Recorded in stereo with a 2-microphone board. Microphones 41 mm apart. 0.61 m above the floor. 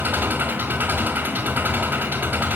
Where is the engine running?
50° right (ahead or behind), 3.5 m.